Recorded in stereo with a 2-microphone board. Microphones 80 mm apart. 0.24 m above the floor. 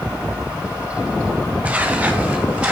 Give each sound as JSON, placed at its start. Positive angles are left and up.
{"t": 1.6, "sound": "footsteps", "side_deg": -15, "distance_m": 6.5}